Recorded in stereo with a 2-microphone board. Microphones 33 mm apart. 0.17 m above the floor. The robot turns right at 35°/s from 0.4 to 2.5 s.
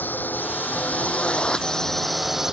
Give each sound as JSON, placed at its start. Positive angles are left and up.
{"t": 0.0, "sound": "a drone", "side_deg": 75}